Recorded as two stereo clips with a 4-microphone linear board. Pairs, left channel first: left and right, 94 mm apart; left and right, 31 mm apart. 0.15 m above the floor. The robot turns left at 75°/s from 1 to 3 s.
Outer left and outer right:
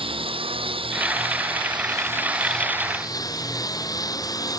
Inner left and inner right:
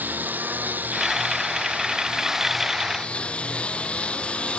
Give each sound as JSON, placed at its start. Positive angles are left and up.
{"t": 0.0, "sound": "a lawn mower", "azimuth_deg": -70}